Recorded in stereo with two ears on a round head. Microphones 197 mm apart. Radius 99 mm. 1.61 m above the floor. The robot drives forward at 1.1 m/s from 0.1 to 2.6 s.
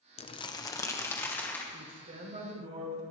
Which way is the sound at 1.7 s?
40° right (ahead or behind).